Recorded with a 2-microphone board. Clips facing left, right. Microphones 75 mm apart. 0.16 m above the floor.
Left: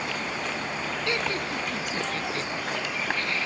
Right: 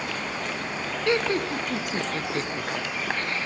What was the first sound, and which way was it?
Laughter, 30° right (ahead or behind).